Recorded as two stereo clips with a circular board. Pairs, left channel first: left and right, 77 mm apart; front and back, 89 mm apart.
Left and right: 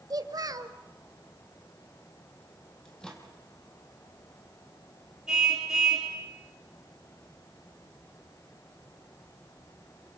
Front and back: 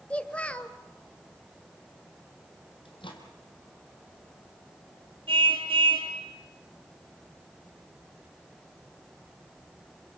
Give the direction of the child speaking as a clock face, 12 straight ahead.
2 o'clock.